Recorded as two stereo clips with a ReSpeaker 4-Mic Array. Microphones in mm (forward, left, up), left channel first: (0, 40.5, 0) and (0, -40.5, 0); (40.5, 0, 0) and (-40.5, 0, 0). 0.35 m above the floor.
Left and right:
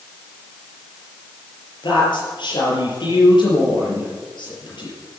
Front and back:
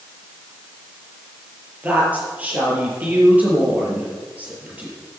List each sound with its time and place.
1.8 s a woman speaking: 110° left, 7 m